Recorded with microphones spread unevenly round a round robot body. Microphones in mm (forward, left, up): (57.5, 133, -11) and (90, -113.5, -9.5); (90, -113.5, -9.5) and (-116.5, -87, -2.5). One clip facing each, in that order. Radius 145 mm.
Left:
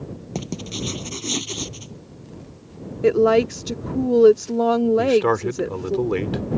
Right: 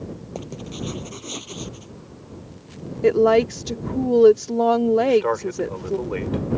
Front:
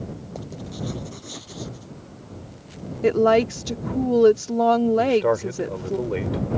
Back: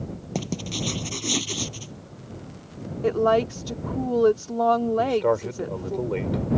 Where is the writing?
145° left.